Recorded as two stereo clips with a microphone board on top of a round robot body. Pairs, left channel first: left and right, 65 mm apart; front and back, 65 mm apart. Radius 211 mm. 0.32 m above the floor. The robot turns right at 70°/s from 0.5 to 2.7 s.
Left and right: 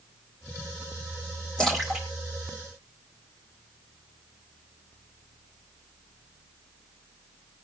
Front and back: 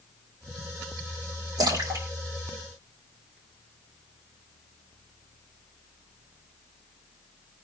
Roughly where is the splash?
Behind.